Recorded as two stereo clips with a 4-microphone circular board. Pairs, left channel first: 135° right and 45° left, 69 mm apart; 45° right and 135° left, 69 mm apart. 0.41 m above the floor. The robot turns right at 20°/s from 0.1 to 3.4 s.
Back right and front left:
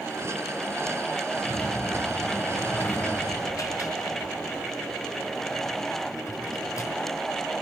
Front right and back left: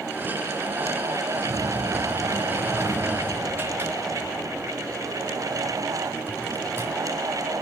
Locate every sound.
1.4 s a sliding door: 150° left, 4.5 m; by 6.9 s 170° right, 4.5 m